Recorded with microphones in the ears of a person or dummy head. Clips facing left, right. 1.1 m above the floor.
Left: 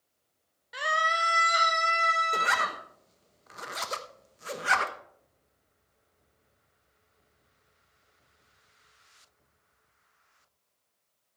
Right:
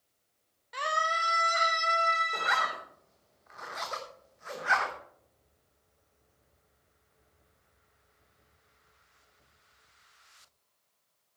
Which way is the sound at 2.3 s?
40° left (ahead or behind).